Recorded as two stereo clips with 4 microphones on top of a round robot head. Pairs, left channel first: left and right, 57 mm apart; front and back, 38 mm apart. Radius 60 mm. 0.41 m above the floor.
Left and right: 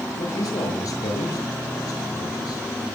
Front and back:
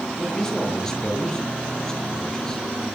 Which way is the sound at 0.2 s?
80° left.